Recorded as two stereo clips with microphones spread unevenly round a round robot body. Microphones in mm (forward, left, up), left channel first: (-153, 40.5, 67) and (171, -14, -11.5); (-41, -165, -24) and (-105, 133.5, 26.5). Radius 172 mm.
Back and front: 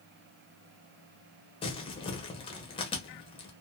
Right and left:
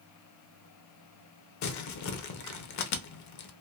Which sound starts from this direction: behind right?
Crumpling, at 1.6 s.